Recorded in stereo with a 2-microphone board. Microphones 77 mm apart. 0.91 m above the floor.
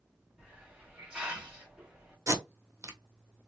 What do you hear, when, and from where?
0.4 s a hiss: 10° right (ahead or behind), 1.9 m
2.3 s tape being pulled: 35° right (ahead or behind), 1.0 m